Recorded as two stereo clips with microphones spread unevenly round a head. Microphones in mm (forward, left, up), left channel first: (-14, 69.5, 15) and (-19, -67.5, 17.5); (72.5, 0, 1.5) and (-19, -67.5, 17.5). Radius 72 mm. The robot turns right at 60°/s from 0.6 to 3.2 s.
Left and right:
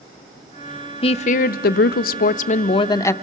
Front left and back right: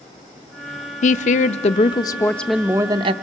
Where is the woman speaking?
35° left, 0.5 m; by 3.1 s 160° left, 0.5 m.